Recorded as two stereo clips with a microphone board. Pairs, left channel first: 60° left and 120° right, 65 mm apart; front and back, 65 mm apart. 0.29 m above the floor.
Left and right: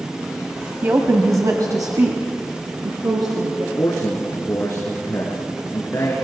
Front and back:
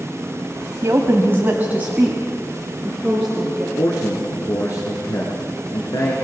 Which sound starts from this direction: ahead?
A man speaking, at 3.8 s.